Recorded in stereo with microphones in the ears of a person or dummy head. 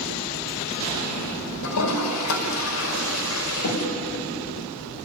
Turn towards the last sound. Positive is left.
turn(degrees=80)